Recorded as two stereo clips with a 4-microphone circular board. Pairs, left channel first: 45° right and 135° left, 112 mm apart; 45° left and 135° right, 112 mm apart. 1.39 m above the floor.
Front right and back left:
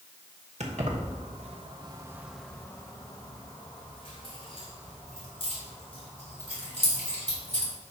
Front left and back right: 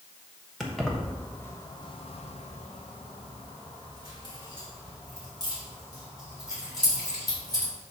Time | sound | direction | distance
0.6 | keys jangling | 135° left | 1.3 m